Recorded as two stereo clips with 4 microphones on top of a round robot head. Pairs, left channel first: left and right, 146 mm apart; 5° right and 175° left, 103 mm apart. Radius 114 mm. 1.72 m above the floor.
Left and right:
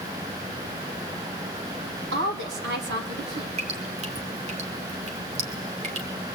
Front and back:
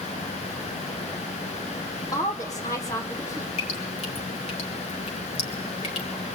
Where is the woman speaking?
75° right, 2.5 m.